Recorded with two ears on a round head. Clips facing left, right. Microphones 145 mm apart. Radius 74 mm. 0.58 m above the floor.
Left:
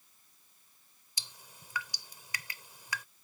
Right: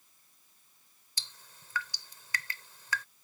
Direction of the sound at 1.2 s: 10° left (ahead or behind).